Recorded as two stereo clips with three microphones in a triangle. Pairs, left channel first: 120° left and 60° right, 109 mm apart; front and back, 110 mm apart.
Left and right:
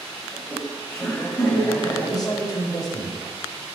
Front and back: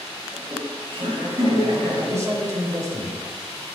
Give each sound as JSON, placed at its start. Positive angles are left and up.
{"t": 0.3, "sound": "laughter", "azimuth_deg": -170, "distance_m": 1.4}
{"t": 2.0, "sound": "a man speaking", "azimuth_deg": 135, "distance_m": 1.1}